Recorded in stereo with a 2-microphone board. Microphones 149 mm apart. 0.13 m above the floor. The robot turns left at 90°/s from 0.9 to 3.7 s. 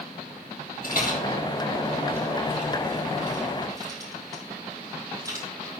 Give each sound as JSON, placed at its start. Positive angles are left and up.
{"t": 0.8, "sound": "a rattle", "side_deg": 70, "distance_m": 5.5}